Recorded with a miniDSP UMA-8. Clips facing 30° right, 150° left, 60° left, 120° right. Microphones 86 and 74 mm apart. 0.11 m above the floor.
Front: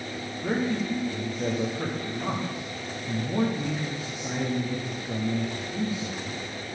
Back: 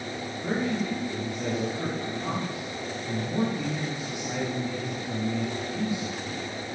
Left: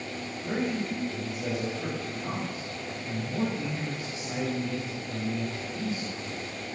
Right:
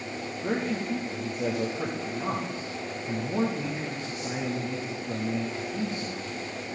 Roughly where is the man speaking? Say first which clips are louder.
Front 1 dB, right 1 dB; right.